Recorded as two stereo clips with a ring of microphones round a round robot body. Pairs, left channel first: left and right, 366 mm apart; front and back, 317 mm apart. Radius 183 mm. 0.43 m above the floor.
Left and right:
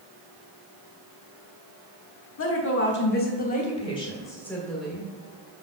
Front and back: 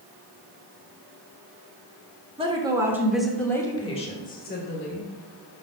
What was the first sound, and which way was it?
A woman speaking, 115° left.